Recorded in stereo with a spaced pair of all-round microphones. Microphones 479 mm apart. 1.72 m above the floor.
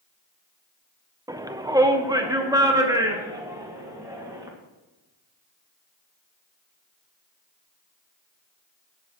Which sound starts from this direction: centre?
A shout, at 1.3 s.